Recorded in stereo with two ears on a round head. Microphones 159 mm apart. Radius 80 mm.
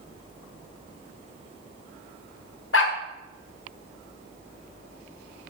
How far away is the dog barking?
About 1.5 m.